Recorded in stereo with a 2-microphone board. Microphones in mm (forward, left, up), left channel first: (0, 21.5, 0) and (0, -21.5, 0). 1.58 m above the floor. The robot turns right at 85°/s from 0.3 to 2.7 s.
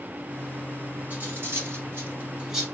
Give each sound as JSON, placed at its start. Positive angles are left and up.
{"t": 1.1, "sound": "cutlery clinking", "side_deg": -40, "distance_m": 2.0}